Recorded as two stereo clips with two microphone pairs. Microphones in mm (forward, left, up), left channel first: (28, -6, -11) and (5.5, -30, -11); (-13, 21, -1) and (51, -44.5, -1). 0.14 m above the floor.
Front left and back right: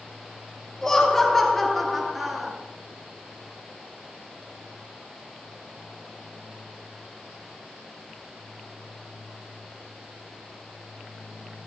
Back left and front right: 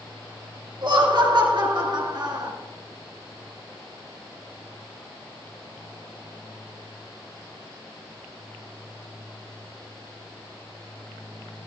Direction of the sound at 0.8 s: 25° right.